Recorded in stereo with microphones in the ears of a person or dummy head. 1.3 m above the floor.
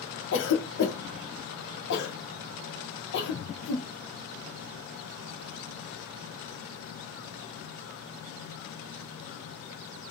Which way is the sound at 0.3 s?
55° left (ahead or behind).